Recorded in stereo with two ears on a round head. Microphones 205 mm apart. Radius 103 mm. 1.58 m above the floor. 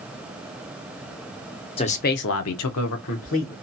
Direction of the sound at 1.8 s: 25° left (ahead or behind).